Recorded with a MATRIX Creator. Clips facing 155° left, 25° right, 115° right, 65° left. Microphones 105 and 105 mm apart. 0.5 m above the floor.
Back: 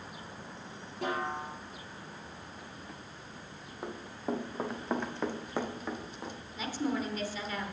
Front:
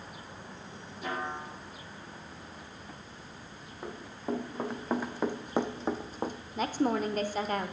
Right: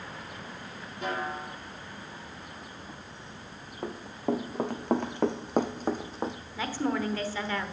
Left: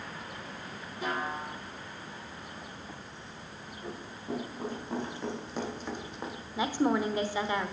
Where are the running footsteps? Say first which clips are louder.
Even, right 9 dB; 120° right, 2.0 m; by 6.4 s 55° right, 0.9 m.